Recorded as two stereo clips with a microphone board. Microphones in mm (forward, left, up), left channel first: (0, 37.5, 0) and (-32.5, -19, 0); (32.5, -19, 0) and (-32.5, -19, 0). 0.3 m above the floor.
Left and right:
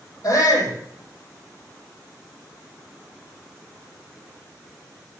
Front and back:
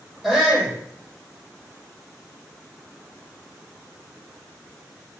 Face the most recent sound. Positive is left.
turn(degrees=90)